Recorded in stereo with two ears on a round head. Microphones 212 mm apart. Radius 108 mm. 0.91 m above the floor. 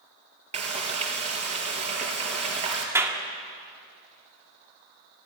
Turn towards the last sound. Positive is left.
turn(degrees=-10)  # may be behind; listen again after turning